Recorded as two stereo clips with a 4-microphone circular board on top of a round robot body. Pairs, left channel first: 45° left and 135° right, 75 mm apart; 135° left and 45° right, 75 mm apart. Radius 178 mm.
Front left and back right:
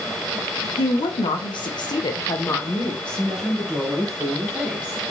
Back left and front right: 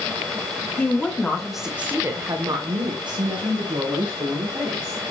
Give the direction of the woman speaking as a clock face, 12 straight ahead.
10 o'clock.